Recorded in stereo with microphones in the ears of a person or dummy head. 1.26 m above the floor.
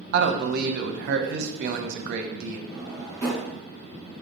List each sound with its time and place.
0.1 s a man speaking: 60° right (ahead or behind), 0.6 m
2.7 s a drawer: 20° left (ahead or behind), 2.5 m